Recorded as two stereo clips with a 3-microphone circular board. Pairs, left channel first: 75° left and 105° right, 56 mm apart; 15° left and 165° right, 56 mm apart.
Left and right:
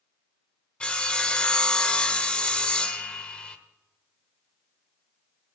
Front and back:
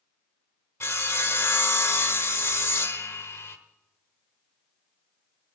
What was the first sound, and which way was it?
Sawing, 10° left.